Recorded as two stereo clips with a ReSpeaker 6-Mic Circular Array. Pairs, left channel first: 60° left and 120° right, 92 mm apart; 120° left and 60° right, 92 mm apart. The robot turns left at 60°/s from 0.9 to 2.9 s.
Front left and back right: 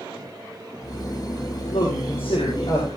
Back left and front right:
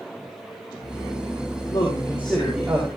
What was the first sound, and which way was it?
A man speaking, 80° left.